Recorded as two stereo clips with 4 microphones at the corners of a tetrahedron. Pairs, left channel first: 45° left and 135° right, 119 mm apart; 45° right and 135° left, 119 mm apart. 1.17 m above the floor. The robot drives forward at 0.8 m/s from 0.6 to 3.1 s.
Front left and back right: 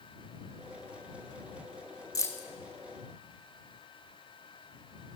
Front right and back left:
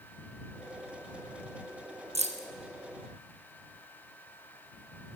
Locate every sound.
2.1 s keys jangling: 105° left, 0.9 m; by 2.5 s 120° left, 1.0 m